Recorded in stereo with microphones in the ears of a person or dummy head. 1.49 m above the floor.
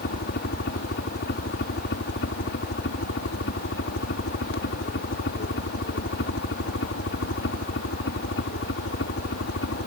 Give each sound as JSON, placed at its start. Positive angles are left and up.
{"t": 0.0, "sound": "a helicopter", "side_deg": 55}